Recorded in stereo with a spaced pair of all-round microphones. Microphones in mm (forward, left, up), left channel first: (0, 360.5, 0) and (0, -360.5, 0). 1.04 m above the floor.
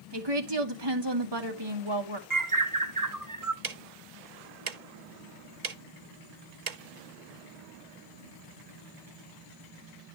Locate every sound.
0.1 s a woman speaking: 35° right (ahead or behind), 1.7 m
2.3 s a bird: 25° right (ahead or behind), 1.0 m
3.6 s ticking: 65° right (ahead or behind), 0.8 m